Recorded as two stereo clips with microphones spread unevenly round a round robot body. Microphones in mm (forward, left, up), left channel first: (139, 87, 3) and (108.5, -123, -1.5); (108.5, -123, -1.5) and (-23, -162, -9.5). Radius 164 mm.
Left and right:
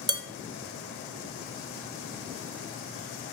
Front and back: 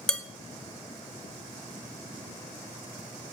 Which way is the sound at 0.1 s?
70° right.